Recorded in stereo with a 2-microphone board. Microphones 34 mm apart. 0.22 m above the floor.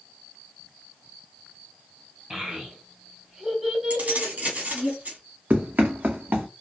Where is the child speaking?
15° right (ahead or behind), 1.1 m; by 4.9 s centre (ahead or behind), 1.3 m.